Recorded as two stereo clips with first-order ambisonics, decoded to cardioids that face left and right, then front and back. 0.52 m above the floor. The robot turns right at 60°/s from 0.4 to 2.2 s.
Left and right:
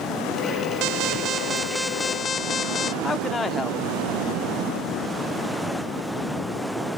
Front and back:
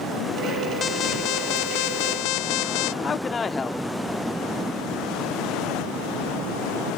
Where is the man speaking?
35° left.